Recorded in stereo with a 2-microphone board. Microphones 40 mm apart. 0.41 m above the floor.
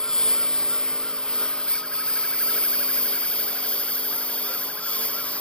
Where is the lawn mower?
15° left (ahead or behind); by 5.4 s 30° left (ahead or behind).